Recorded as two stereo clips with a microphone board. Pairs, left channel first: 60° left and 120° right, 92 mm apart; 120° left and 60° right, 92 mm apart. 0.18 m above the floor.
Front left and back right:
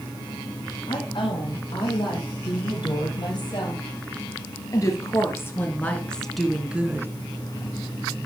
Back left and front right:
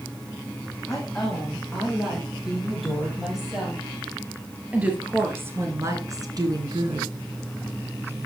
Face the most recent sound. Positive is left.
turn(degrees=-60)